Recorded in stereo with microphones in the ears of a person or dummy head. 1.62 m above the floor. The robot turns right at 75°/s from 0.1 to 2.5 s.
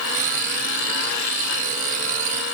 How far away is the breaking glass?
No breaking glass in this recording.